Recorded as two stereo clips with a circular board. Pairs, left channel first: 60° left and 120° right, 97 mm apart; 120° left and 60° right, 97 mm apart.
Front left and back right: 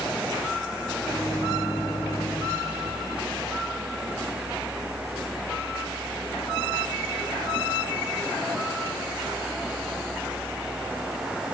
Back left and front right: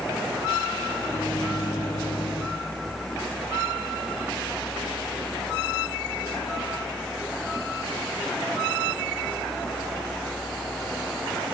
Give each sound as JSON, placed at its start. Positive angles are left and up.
{"t": 1.0, "sound": "a microwave", "azimuth_deg": 120, "distance_m": 6.0}